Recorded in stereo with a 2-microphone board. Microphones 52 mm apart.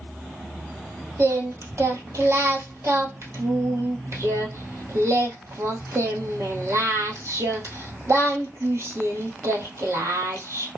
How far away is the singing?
About 1.4 m.